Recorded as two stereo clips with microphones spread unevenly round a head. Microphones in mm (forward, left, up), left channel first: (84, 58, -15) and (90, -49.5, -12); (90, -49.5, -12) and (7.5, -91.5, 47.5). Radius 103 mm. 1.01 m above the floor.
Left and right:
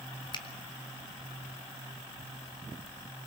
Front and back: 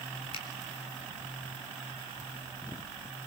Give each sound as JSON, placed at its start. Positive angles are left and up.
{"t": 0.3, "sound": "a finger snap", "azimuth_deg": 50, "distance_m": 4.0}